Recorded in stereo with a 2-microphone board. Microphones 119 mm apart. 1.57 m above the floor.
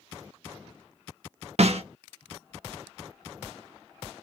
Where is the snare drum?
65° right (ahead or behind), 0.5 m.